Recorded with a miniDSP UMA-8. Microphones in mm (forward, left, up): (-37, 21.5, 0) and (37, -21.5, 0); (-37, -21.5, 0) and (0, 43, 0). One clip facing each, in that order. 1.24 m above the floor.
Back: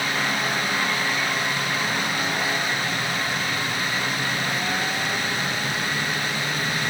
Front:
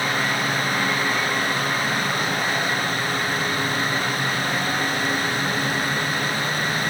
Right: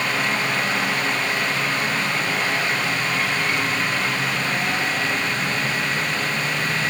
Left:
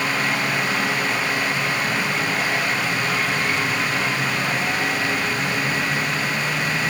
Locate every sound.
Only background noise.